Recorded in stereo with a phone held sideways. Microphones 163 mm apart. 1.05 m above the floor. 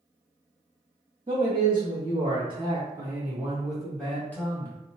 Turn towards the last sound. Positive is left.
turn(degrees=15)  # may be behind; listen again after turning